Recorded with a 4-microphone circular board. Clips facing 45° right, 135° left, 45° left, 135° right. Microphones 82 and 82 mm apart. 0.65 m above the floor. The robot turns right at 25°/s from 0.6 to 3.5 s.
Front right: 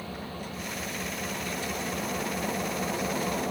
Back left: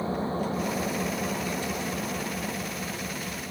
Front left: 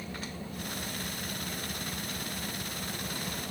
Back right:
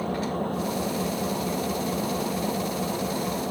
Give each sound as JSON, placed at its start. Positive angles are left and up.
{"t": 0.0, "sound": "an engine running", "azimuth_deg": -165}